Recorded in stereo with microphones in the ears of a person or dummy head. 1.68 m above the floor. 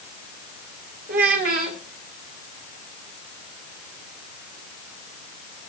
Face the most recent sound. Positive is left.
turn(degrees=-35)  # may be behind; listen again after turning